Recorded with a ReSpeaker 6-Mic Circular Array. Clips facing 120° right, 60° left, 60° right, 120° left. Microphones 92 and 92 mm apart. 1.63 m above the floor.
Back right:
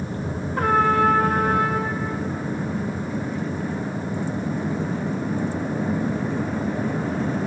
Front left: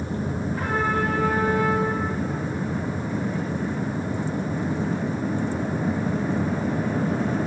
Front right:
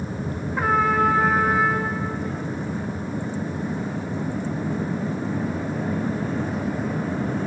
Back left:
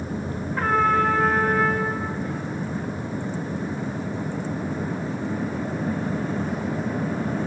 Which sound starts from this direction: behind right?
A trumpet, at 0.6 s.